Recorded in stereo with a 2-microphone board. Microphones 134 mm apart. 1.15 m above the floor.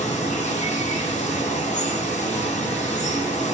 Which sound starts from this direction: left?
Running water, at 0.0 s.